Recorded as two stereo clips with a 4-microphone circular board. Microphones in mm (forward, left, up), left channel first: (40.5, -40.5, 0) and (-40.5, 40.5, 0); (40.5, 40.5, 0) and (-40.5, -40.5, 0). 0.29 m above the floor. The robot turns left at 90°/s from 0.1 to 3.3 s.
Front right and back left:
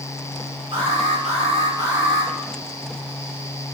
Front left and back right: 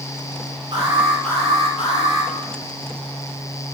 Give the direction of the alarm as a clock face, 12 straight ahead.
6 o'clock.